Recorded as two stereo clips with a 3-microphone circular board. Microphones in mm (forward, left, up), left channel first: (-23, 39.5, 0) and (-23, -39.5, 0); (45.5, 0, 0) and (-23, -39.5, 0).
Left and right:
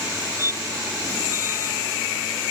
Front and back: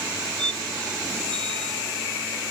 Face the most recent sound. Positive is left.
turn(degrees=-145)